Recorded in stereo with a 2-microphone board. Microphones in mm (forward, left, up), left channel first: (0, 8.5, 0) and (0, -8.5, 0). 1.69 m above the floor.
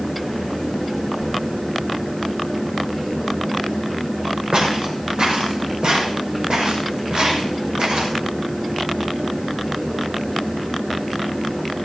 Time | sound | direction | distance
4.5 | footsteps | 70° right (ahead or behind) | 5.5 m